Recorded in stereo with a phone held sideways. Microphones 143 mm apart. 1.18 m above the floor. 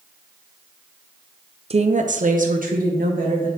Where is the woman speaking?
45° right (ahead or behind), 0.5 m; by 3.5 s 80° right, 2 m.